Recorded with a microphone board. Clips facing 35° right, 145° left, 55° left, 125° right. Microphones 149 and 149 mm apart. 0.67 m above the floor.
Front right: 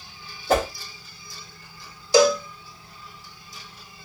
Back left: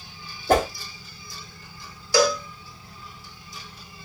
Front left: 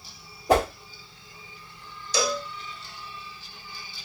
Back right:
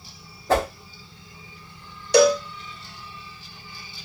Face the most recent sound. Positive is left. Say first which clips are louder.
# front right 4 dB, back right 11 dB
turn(degrees=-100)